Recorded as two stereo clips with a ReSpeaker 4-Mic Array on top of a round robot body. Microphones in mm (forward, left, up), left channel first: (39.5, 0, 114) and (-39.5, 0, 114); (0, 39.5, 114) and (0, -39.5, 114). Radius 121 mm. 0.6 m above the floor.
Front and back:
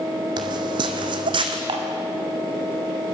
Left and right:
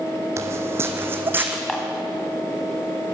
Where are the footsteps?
145° right, 1.2 m; by 1.6 s 160° right, 1.8 m.